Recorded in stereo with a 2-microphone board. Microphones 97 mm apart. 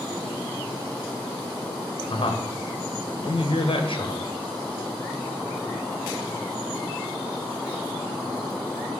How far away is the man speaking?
About 1.0 m.